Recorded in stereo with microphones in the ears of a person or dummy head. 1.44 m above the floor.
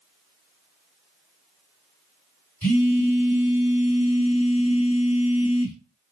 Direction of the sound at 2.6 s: 15° left (ahead or behind).